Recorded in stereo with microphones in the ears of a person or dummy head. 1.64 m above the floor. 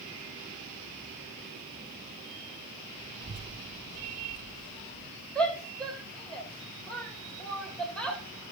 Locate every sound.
3.2 s a child speaking: 30° right (ahead or behind), 1.1 m; by 5.1 s 60° left (ahead or behind), 1.7 m
5.3 s a shout: 5° left (ahead or behind), 3 m